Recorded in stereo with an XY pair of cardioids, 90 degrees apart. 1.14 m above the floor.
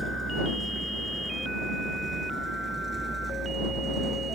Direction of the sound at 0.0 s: 10° right.